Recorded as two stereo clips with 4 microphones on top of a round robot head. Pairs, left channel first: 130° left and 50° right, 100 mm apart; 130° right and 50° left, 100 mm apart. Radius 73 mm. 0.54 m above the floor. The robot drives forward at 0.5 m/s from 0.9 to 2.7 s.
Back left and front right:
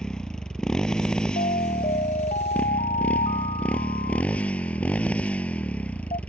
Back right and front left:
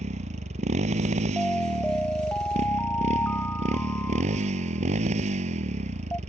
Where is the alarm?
145° left; by 6.2 s 155° left.